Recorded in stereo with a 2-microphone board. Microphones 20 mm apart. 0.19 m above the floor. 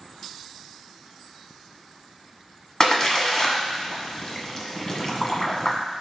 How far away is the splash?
About 1.2 m.